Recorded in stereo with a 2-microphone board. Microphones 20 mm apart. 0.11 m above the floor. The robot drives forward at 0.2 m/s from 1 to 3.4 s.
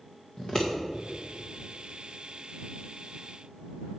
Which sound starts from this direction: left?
Scissors, at 0.4 s.